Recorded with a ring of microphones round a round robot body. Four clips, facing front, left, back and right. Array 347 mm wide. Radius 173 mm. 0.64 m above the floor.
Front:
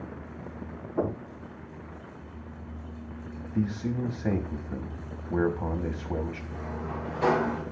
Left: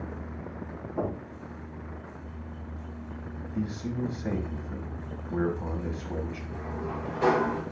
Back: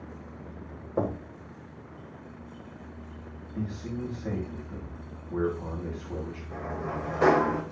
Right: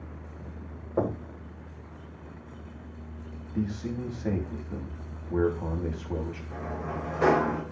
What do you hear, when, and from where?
1.0 s knocking: 135° right, 2 m
3.5 s a man speaking: 10° right, 1.2 m
6.5 s a sliding door: 155° right, 1.7 m